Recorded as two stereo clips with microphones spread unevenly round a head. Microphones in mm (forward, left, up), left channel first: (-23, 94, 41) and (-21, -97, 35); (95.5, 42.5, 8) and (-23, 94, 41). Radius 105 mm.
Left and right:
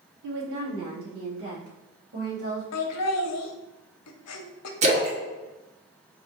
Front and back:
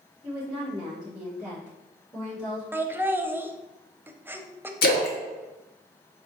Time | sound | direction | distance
0.2 | a woman speaking | 115° right | 1.1 m
2.7 | laughter | 85° left | 0.6 m
4.8 | a splash | 30° right | 0.6 m